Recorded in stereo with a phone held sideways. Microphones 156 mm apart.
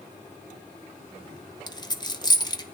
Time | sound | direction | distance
1.7 | a dropped coin | 25° left (ahead or behind) | 0.7 m